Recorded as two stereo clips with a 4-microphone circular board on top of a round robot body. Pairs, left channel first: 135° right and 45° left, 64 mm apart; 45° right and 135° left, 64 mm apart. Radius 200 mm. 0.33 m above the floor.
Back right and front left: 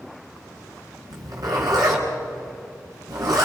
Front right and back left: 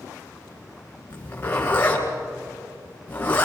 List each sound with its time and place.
1.1 s a zipper: 20° left, 4 m